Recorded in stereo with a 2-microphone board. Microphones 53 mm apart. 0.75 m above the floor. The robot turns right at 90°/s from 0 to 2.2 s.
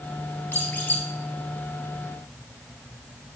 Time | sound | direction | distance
0.5 | a squeak | 85° left | 0.8 m